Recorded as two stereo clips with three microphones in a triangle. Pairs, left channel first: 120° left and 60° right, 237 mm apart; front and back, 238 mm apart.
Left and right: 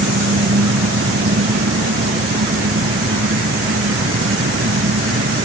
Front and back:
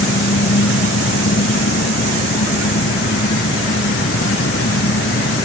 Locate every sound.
0.0 s an engine running: 35° right